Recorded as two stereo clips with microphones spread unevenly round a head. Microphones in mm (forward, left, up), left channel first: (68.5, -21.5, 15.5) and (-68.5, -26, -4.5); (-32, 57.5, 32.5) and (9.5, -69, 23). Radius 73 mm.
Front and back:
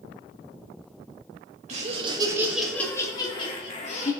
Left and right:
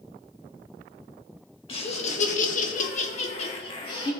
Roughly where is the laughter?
Behind left.